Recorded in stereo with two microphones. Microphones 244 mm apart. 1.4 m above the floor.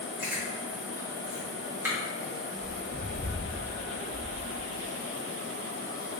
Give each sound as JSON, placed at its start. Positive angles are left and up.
{"t": 0.2, "sound": "chewing", "side_deg": -10, "distance_m": 3.0}